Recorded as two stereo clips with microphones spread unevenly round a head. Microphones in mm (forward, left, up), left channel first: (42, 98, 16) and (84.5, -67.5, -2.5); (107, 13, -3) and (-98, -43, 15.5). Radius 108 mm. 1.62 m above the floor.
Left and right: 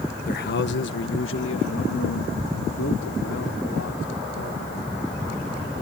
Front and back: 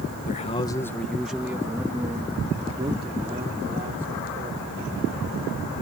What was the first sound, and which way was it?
A man speaking, 70° left.